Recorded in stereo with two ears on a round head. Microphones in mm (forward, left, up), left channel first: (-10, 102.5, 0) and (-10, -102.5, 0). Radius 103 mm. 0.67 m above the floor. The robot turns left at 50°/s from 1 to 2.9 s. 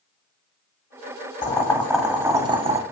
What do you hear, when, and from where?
1.4 s boiling: 30° left, 0.6 m; by 2.8 s 40° right, 0.6 m